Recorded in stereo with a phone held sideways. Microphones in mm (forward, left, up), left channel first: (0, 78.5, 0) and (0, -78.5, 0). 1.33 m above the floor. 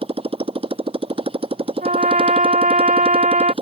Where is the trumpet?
55° right (ahead or behind).